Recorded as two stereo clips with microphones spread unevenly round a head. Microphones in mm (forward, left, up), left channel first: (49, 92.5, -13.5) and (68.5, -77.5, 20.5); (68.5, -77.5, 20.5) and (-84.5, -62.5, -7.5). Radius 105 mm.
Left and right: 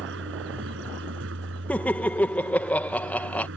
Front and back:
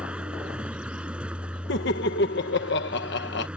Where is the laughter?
15° left.